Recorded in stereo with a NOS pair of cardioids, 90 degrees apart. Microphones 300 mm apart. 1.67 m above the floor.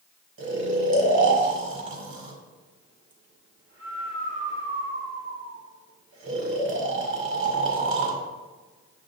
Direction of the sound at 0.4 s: 40° right.